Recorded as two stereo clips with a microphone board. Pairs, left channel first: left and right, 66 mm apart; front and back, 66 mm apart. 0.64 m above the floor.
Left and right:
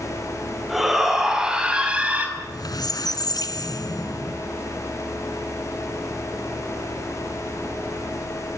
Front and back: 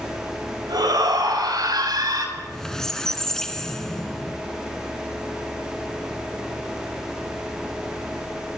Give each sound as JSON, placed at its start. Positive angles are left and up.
{"t": 0.7, "sound": "a shout", "azimuth_deg": -175, "distance_m": 5.0}
{"t": 2.4, "sound": "a squeak", "azimuth_deg": 85, "distance_m": 1.6}